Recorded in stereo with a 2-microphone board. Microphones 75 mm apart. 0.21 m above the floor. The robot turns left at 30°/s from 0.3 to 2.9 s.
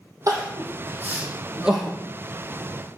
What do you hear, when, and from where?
0.3 s crying: 50° right (ahead or behind), 3.5 m; by 2.0 s centre (ahead or behind), 3.5 m